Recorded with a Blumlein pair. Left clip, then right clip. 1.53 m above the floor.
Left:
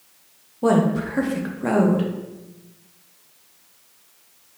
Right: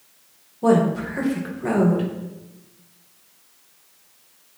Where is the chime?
I don't hear a chime.